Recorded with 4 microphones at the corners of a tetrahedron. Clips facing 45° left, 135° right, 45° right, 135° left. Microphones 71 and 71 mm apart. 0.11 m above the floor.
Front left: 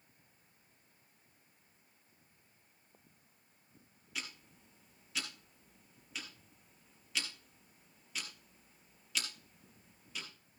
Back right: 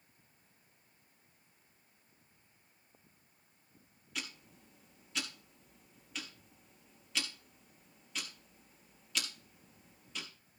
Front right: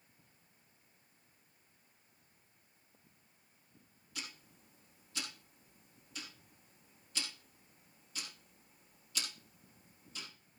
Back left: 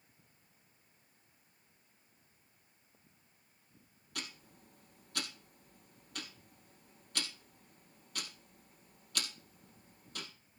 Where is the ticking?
135° left, 3 m.